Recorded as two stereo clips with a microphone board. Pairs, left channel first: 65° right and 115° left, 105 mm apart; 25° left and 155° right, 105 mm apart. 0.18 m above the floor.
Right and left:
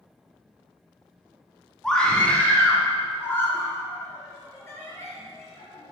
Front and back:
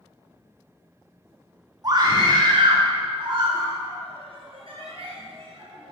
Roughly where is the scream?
Behind right.